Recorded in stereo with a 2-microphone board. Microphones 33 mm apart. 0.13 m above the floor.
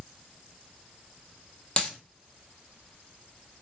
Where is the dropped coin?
30° left (ahead or behind), 0.9 m.